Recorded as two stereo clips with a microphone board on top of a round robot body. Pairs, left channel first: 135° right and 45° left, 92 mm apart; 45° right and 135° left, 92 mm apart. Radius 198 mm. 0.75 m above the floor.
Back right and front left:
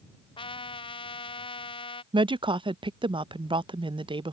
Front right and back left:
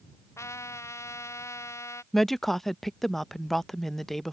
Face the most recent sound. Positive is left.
turn(degrees=40)